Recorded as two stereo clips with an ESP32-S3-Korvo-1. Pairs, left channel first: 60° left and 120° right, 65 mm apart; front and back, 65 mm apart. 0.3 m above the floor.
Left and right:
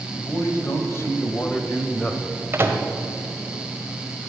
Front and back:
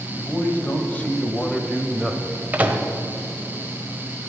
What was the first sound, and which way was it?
A man speaking, 50° left.